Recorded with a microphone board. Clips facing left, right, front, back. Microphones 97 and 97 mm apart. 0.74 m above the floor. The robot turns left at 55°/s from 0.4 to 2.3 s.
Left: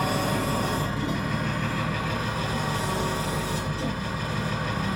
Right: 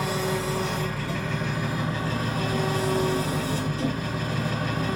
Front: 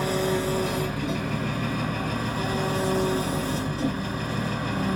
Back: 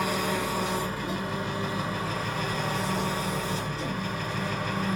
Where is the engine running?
60° left, 4.5 m; by 5.0 s 45° right, 4.5 m.